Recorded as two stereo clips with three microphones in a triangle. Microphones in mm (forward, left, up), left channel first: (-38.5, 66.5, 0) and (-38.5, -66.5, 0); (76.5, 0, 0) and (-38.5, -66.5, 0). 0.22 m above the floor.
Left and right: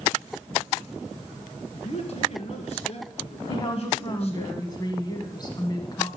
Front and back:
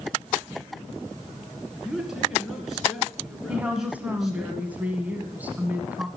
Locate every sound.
1.7 s a man speaking: 120° left, 2.5 m
3.5 s a woman speaking: 135° left, 1.4 m